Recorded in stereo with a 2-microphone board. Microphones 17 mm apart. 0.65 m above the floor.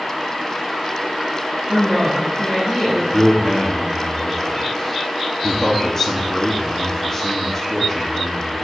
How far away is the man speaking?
About 1.1 m.